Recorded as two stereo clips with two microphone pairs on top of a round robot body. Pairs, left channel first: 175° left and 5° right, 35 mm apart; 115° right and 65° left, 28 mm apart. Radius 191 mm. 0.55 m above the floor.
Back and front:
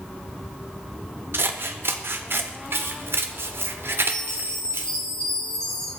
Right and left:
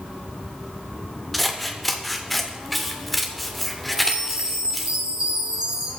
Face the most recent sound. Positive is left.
turn(degrees=115)